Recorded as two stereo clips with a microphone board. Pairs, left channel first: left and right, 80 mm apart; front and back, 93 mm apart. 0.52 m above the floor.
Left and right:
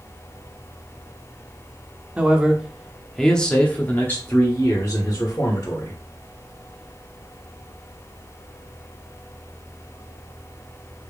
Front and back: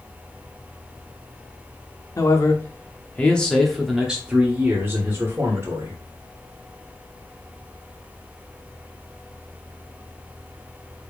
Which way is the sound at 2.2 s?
25° right.